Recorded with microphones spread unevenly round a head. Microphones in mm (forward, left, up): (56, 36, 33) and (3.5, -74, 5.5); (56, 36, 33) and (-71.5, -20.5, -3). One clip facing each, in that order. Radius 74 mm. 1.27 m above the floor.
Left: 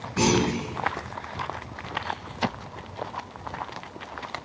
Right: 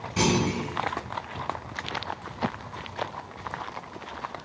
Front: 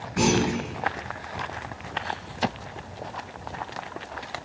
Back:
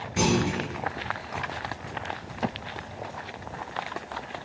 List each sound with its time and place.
0.2 s a clunk: 140° right, 1.3 m